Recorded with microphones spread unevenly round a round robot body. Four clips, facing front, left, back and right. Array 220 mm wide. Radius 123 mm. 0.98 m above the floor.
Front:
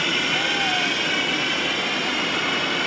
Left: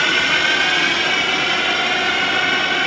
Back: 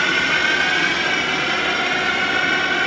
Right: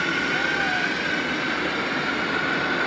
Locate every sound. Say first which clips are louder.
0.0 s a drone: left 5 dB, back 5 dB; 130° left